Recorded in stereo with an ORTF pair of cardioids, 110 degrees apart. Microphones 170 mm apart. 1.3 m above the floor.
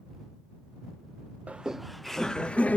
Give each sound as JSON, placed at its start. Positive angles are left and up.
{"t": 1.5, "sound": "laughter", "azimuth_deg": -10}